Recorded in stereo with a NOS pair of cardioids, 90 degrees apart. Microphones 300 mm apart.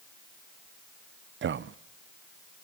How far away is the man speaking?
About 0.8 m.